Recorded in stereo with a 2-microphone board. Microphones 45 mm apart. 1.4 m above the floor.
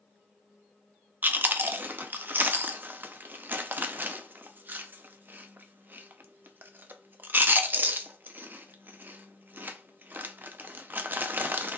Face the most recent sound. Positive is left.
turn(degrees=-45)  # may be behind; listen again after turning